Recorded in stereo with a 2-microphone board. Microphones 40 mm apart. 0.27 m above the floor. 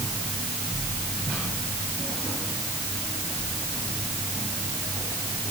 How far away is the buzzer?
I don't hear a buzzer.